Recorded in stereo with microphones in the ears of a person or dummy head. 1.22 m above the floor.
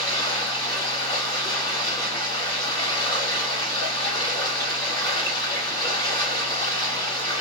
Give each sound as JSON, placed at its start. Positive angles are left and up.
{"t": 0.0, "sound": "running water", "side_deg": 20, "distance_m": 1.9}